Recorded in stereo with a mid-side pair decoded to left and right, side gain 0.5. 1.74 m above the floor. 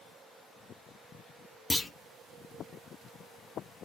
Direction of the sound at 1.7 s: 15° left.